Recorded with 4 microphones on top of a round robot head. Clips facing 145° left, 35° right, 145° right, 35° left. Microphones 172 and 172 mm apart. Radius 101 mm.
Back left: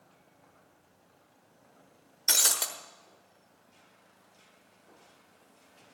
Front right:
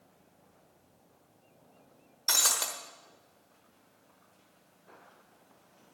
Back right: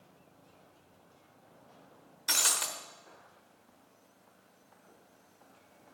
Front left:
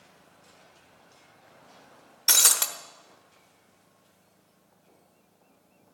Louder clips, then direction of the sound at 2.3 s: Even, front left 4 dB; 75° left.